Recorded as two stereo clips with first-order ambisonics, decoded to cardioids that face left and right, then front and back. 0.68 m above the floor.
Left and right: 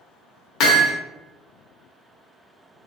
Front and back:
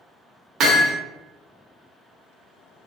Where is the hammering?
130° left, 0.6 m.